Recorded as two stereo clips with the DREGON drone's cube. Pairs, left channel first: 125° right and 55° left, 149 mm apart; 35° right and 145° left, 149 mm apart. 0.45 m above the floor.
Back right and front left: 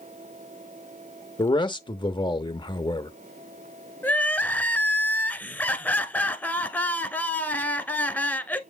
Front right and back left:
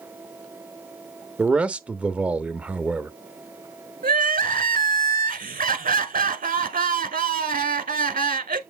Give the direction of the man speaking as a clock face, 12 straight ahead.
5 o'clock.